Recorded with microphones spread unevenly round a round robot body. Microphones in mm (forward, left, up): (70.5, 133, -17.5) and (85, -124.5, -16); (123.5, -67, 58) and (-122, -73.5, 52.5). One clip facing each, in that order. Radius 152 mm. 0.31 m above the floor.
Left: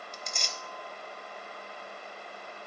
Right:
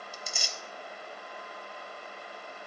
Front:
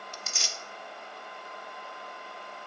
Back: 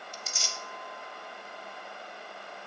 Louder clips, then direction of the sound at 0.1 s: Left 1 dB, even; 5° right.